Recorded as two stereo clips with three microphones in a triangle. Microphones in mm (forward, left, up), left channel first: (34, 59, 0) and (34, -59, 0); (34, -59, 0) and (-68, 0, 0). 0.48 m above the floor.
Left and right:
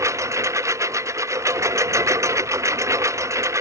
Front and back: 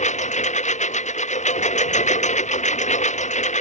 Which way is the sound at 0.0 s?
25° right.